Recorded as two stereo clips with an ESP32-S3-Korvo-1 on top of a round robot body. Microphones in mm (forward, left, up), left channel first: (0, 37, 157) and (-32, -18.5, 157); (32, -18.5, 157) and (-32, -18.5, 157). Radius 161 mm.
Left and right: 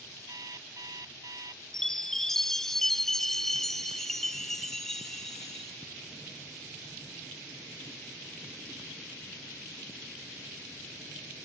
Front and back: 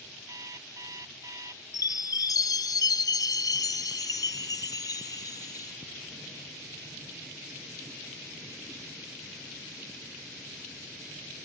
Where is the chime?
25° right.